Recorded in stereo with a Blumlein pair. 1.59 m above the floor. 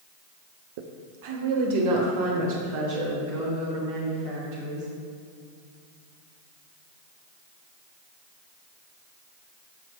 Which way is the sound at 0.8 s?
50° right.